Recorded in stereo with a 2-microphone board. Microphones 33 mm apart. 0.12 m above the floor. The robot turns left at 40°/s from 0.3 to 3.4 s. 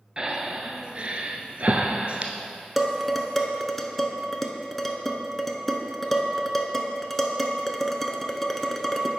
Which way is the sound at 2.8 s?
Centre (ahead or behind).